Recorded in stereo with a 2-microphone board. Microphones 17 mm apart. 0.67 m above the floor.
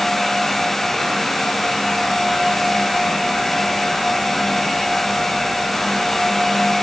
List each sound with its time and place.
Only background noise.